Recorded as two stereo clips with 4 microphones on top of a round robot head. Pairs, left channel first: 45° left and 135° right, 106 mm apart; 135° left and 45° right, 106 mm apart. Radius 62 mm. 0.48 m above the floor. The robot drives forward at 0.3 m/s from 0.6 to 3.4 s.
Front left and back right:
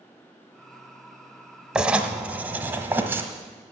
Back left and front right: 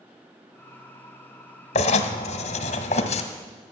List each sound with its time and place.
1.8 s writing: 140° left, 0.9 m; by 3.2 s 155° left, 1.3 m